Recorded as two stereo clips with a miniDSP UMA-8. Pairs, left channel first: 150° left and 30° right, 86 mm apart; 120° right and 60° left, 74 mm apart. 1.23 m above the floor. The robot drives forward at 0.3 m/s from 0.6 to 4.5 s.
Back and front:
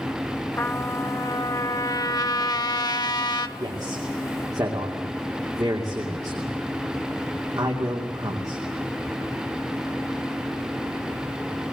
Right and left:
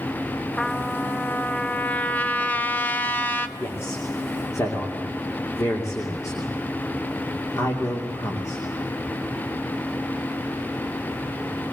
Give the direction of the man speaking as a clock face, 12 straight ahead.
2 o'clock.